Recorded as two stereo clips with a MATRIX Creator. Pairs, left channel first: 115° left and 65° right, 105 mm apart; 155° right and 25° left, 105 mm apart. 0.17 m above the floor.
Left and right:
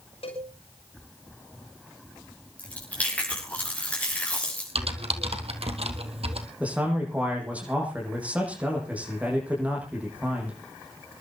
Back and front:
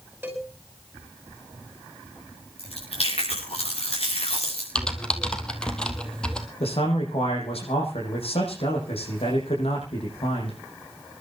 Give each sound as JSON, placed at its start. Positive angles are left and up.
{"t": 0.2, "sound": "a cowbell", "azimuth_deg": 95, "distance_m": 5.5}
{"t": 2.6, "sound": "chewing", "azimuth_deg": -170, "distance_m": 7.5}
{"t": 4.8, "sound": "typing on a keyboard", "azimuth_deg": -75, "distance_m": 2.0}
{"t": 6.6, "sound": "a man speaking", "azimuth_deg": -145, "distance_m": 7.5}